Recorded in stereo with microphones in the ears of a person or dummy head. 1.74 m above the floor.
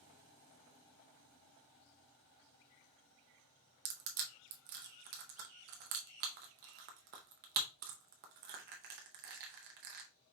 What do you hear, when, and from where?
3.9 s crushing: 50° right (ahead or behind), 0.7 m